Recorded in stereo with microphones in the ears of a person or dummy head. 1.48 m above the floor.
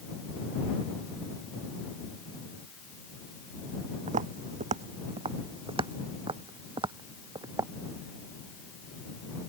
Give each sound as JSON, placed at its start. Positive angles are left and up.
{"t": 4.1, "sound": "footsteps", "side_deg": -40}